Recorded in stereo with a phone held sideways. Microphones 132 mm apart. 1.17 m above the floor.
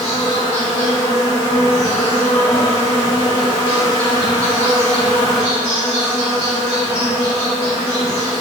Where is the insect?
50° left (ahead or behind), 1.8 m.